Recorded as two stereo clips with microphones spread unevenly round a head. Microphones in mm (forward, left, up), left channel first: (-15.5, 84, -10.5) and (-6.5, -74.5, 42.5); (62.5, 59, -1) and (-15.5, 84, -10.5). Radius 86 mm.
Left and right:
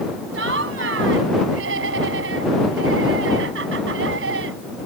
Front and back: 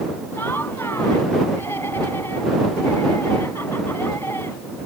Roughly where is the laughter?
Right.